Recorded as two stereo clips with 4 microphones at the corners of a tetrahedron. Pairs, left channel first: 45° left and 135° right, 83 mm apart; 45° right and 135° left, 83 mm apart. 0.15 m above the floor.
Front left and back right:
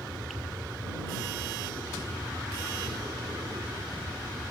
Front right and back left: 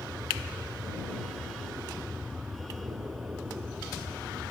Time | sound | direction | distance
0.0 | an aircraft | 165° right | ?